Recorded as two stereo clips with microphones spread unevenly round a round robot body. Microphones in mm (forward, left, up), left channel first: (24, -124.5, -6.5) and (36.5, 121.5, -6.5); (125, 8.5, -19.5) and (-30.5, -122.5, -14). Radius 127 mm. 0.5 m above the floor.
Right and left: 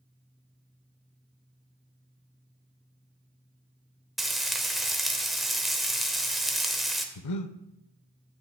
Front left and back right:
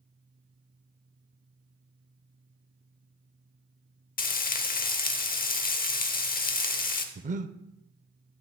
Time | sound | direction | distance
4.2 | frying | straight ahead | 0.9 m
7.2 | breathing | 85° right | 0.5 m